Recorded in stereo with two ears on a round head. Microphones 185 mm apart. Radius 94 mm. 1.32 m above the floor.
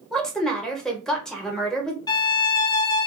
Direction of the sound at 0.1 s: 5° left (ahead or behind).